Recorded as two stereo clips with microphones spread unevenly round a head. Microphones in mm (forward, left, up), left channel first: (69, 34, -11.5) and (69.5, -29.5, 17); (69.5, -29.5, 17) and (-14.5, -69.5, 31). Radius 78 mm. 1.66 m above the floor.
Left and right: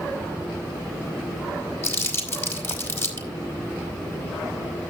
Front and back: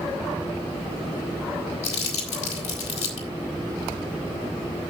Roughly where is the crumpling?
Ahead left.